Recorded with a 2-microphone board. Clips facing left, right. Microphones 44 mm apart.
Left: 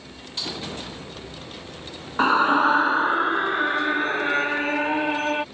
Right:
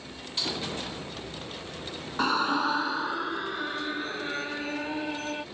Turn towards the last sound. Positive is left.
turn(degrees=45)  # may be behind; listen again after turning